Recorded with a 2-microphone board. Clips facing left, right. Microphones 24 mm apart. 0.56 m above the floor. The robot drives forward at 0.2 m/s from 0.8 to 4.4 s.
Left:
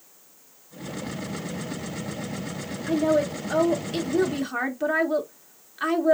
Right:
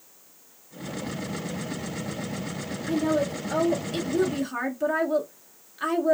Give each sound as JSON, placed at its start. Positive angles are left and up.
{"t": 2.9, "sound": "a woman speaking", "side_deg": 20, "distance_m": 0.7}